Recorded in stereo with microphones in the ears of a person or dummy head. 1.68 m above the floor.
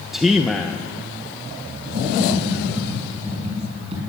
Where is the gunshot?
No gunshot in this recording.